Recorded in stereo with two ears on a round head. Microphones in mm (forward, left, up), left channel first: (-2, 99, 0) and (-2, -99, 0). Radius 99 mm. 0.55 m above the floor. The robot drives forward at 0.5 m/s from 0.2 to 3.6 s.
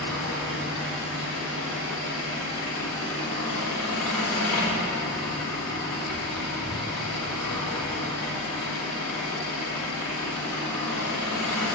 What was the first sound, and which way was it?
An engine running, 55° left (ahead or behind).